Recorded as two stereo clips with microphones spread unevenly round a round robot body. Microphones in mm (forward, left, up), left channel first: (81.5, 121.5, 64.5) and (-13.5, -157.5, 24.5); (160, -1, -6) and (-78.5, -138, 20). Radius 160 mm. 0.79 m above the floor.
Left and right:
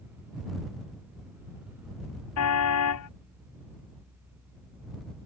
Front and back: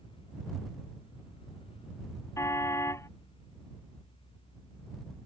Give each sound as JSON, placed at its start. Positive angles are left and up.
{"t": 2.4, "sound": "a car horn", "azimuth_deg": 115}